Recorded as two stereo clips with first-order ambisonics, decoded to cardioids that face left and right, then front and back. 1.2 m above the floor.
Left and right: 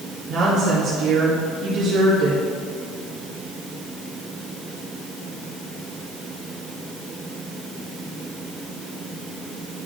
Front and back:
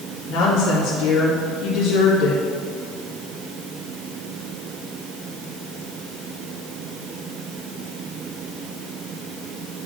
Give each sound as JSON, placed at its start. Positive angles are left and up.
{"t": 0.3, "sound": "a woman speaking", "azimuth_deg": -45, "distance_m": 1.7}